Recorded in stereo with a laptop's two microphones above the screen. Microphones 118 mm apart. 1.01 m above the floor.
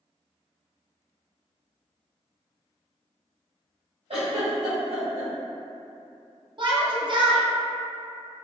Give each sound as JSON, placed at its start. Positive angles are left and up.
{"t": 4.1, "sound": "a giggle", "side_deg": -60, "distance_m": 0.8}
{"t": 6.6, "sound": "a shout", "side_deg": -40, "distance_m": 0.5}